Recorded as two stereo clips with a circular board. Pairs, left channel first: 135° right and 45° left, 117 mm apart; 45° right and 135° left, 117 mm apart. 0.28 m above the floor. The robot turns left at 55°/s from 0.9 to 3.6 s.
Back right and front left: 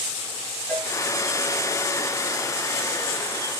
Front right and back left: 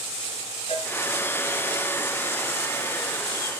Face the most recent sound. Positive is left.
turn(degrees=145)